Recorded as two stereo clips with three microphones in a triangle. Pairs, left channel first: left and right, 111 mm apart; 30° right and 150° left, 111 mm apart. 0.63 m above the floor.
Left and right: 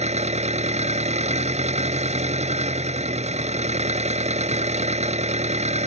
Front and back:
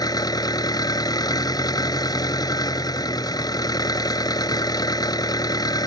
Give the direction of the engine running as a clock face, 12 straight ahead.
3 o'clock.